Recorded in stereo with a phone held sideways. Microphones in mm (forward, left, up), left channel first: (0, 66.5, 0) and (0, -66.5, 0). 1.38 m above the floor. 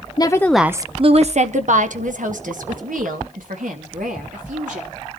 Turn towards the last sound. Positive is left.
turn(degrees=-85)